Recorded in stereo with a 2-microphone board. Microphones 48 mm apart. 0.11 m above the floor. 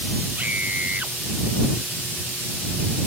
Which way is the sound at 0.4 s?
30° right (ahead or behind).